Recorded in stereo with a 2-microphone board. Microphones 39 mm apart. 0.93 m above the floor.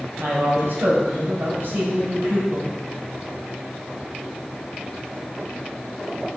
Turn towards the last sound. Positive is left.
turn(degrees=-75)  # may be behind; listen again after turning